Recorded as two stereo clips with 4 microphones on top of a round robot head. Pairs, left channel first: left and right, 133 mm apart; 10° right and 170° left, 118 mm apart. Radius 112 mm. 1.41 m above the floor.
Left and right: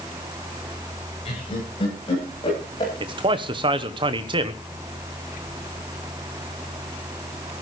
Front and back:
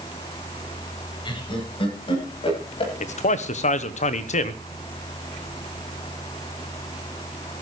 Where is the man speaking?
35° right, 1.0 m.